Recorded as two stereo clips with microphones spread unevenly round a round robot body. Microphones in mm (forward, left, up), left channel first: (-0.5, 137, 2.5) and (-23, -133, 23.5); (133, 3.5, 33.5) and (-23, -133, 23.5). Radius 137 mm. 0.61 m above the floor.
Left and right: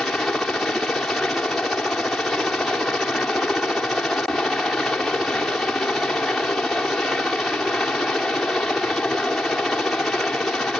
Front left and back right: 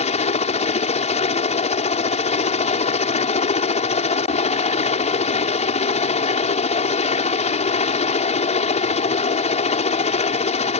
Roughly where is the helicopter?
Ahead.